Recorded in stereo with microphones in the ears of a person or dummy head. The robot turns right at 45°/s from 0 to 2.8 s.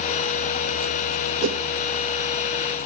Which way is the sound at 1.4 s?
70° right (ahead or behind).